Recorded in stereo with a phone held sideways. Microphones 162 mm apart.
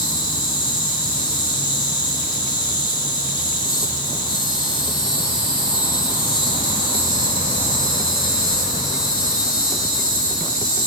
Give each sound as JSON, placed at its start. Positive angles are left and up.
{"t": 0.0, "sound": "an insect", "side_deg": 30, "distance_m": 2.0}